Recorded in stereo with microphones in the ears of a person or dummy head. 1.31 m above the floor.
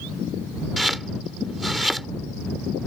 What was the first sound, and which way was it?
Chopping, 5° left (ahead or behind).